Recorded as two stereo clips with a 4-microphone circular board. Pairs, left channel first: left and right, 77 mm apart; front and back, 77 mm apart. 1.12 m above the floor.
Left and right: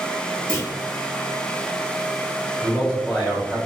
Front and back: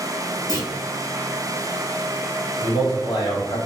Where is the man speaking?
10° left, 1.9 m.